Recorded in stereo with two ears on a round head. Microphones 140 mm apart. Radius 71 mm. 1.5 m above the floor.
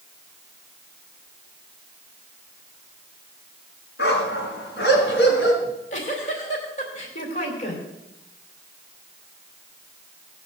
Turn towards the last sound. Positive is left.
turn(degrees=45)  # may be behind; listen again after turning